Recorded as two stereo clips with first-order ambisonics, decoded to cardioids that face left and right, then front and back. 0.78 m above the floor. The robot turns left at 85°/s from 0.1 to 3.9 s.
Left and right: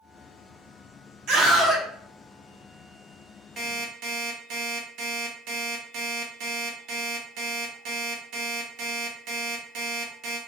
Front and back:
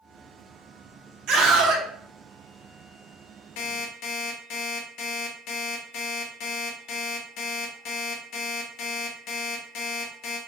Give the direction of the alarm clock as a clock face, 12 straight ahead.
1 o'clock.